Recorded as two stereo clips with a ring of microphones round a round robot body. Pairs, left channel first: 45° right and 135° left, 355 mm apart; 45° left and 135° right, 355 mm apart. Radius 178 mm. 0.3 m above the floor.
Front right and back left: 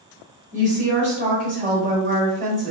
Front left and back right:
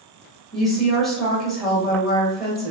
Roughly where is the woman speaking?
Behind left.